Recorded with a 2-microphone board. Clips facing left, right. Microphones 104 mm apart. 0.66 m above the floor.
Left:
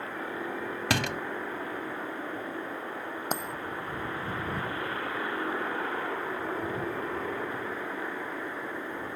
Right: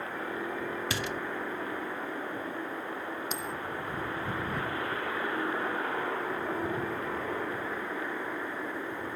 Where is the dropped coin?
55° left (ahead or behind).